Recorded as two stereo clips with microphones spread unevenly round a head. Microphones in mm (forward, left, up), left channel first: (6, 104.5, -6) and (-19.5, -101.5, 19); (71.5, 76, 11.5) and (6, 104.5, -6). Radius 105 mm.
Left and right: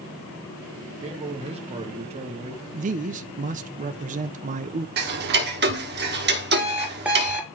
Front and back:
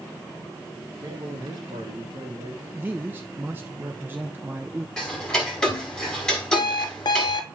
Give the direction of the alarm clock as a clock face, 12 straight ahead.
12 o'clock.